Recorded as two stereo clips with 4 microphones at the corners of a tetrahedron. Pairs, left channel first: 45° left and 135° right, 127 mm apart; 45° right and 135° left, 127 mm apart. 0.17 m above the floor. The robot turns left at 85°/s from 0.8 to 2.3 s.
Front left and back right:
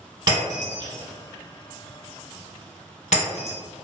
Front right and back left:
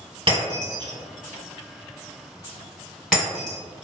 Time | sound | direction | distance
0.3 | breaking glass | 175° left | 1.5 m